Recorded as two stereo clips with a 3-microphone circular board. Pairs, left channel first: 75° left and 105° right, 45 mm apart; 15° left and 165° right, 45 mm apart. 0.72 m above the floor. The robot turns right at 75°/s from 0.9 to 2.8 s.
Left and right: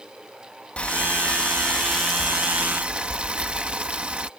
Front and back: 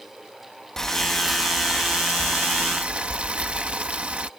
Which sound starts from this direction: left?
Boiling, at 0.8 s.